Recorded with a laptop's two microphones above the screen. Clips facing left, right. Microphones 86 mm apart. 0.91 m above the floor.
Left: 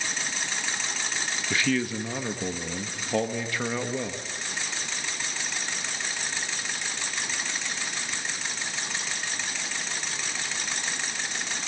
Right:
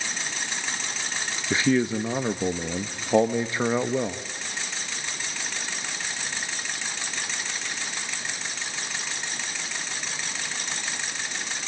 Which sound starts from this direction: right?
A man speaking, at 1.5 s.